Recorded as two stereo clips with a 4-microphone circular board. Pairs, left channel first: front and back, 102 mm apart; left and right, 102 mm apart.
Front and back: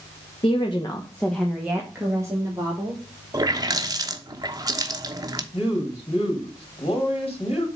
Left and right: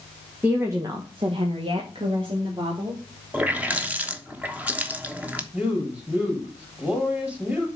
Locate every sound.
0.4 s a woman speaking: 15° right, 1.5 m; by 3.0 s 130° right, 3.5 m
3.3 s a running tap: 155° right, 0.9 m
5.5 s a woman speaking: 10° right, 3.5 m